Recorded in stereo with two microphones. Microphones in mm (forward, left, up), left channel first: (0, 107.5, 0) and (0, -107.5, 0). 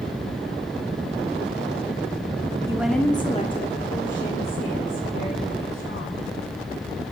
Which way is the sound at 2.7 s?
15° right (ahead or behind).